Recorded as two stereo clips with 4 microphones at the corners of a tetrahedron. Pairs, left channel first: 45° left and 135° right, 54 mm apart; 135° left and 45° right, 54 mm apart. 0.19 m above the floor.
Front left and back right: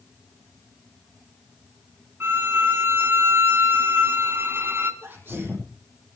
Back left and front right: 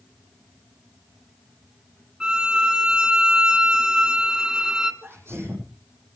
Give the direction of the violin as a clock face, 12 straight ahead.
4 o'clock.